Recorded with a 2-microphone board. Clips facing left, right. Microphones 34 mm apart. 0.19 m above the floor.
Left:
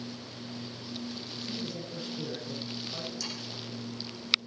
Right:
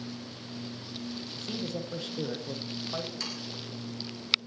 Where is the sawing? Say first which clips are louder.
Right 1 dB; 50° right (ahead or behind), 10 m.